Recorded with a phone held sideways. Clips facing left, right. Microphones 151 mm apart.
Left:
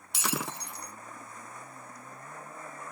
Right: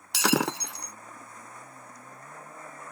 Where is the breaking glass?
80° right.